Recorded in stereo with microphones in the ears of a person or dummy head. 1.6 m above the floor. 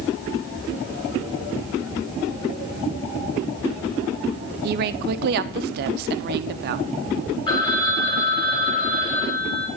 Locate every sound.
4.6 s a woman speaking: 50° right (ahead or behind), 0.6 m
7.5 s a phone ringing: 15° left (ahead or behind), 1.8 m